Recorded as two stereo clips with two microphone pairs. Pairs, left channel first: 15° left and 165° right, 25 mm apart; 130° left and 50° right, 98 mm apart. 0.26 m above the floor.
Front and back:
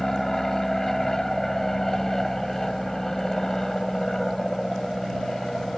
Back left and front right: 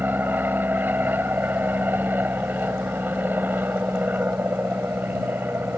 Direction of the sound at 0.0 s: 25° right.